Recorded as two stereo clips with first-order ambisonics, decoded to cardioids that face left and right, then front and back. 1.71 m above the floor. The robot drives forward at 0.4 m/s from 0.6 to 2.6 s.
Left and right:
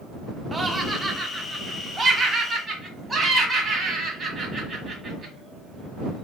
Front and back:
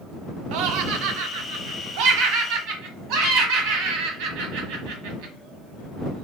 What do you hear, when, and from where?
0.5 s laughter: 165° right, 0.6 m; by 5.3 s 175° right, 1.4 m